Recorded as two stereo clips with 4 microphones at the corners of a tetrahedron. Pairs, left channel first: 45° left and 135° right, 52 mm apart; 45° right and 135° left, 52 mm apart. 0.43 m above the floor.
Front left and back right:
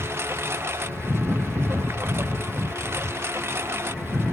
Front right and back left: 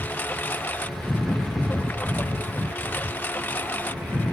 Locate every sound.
0.0 s a lawn mower: 100° right